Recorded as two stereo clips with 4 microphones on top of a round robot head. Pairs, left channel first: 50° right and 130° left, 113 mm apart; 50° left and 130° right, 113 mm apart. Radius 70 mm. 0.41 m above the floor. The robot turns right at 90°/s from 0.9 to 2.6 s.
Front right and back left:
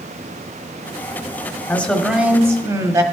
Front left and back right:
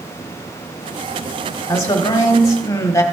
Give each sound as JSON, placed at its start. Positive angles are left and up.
{"t": 1.7, "sound": "a man speaking", "azimuth_deg": 10, "distance_m": 1.2}